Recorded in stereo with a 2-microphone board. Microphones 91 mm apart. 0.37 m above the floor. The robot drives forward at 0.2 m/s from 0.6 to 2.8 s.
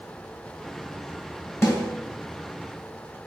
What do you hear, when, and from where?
1.6 s a snare drum: 30° left (ahead or behind), 1.2 m